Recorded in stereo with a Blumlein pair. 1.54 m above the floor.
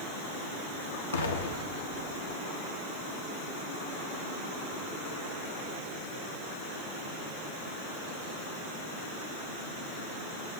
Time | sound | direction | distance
1.1 | an explosion | 65° left | 0.8 m